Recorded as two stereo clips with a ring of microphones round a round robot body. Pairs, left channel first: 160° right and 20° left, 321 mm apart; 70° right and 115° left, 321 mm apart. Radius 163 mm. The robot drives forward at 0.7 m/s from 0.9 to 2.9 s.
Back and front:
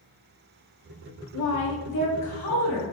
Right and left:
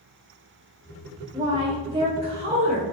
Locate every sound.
1.3 s a woman speaking: 170° right, 0.6 m; by 2.9 s 175° right, 1.6 m